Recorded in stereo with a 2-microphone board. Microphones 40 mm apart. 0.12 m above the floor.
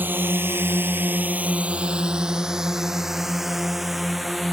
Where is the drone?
50° right (ahead or behind); by 4.5 s centre (ahead or behind).